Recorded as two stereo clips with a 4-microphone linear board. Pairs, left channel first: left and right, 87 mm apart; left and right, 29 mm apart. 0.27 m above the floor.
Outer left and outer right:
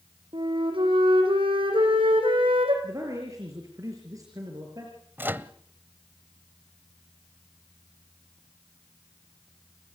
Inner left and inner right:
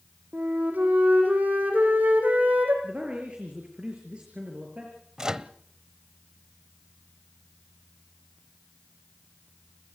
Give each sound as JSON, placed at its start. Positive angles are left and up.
{"t": 0.3, "sound": "a flute", "side_deg": -80, "distance_m": 6.0}
{"t": 2.8, "sound": "a man speaking", "side_deg": -40, "distance_m": 6.0}
{"t": 5.2, "sound": "a microwave", "side_deg": -25, "distance_m": 0.8}